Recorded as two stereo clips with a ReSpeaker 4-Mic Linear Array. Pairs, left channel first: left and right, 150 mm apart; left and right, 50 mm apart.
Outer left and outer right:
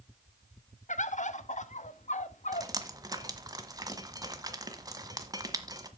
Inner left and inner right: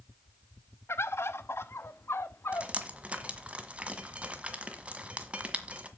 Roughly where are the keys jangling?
I don't hear keys jangling.